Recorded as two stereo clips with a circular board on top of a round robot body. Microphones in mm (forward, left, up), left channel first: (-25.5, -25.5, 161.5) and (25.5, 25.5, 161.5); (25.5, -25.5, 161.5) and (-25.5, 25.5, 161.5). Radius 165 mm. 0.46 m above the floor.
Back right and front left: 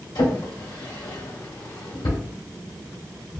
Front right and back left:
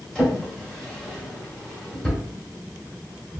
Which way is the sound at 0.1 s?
125° right.